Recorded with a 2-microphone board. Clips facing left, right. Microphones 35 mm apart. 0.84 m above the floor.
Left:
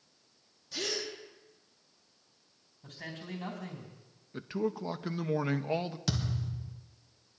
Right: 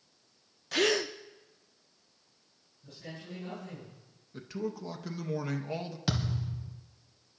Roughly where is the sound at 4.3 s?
Left.